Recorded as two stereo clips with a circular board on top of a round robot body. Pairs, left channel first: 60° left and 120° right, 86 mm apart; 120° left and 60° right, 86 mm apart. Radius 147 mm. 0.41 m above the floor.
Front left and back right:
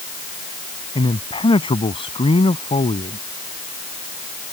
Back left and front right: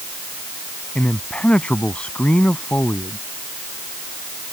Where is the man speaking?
45° left.